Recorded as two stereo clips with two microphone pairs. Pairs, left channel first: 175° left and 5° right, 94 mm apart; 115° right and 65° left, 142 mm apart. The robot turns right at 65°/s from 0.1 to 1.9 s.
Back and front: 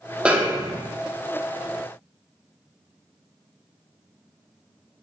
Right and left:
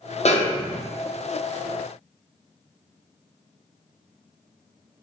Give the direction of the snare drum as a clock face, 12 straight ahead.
3 o'clock.